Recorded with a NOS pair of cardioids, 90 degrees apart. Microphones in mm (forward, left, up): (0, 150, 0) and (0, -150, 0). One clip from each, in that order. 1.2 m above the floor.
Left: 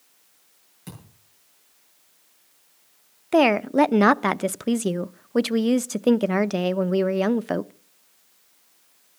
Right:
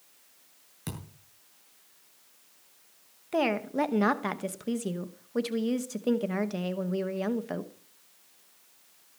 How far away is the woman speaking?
About 0.8 m.